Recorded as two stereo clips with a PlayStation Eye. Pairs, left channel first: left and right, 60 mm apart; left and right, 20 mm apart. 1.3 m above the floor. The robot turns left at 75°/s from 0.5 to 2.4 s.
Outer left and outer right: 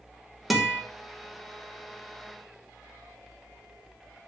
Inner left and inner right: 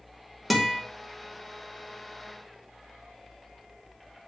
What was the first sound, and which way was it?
A guitar, centre (ahead or behind).